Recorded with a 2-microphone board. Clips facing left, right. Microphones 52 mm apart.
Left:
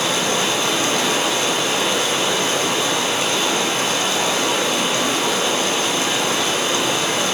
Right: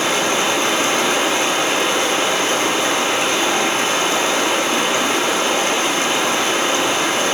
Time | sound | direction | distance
0.0 | running water | 35° right (ahead or behind) | 1.9 m